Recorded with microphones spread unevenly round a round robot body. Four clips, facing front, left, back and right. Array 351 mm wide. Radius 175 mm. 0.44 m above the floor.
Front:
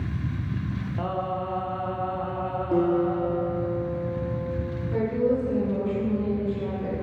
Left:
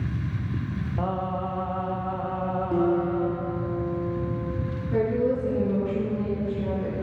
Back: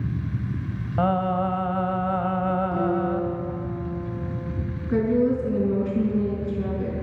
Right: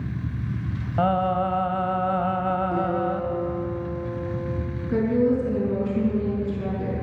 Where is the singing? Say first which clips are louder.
Right 8 dB, back 7 dB; 140° right, 1.0 m.